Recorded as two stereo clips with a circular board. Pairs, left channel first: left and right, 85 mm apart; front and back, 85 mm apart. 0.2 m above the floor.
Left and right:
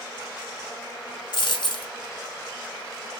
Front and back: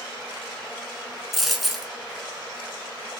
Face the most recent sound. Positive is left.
turn(degrees=95)